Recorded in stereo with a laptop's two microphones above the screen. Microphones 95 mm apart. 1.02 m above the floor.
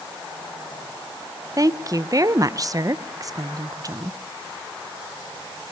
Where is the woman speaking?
35° right (ahead or behind), 0.6 m.